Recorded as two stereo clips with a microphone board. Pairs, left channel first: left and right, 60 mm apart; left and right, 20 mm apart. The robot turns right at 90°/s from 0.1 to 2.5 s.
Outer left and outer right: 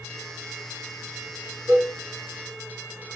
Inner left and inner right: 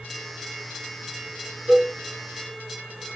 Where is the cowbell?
60° right (ahead or behind), 5.5 m; by 1.9 s 75° right (ahead or behind), 5.5 m.